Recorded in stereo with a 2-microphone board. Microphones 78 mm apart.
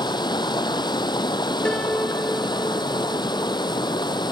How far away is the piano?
About 0.6 m.